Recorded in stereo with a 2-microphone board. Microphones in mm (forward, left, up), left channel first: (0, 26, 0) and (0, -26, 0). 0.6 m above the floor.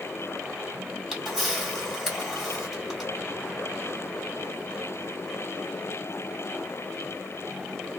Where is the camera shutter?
5° right (ahead or behind), 2 m.